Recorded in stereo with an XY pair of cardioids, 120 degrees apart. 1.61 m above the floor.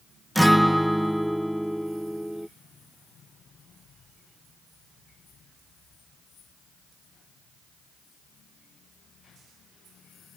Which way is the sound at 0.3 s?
Straight ahead.